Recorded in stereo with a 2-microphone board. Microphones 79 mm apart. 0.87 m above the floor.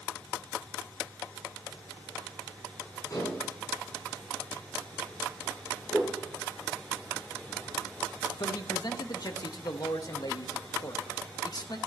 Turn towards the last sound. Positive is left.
turn(degrees=55)  # may be behind; listen again after turning